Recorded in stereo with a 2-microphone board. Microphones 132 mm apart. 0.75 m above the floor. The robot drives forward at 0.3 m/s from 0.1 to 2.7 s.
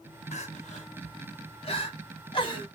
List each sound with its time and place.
0.3 s crying: 60° left (ahead or behind), 0.8 m; by 2.7 s 40° left (ahead or behind), 1.1 m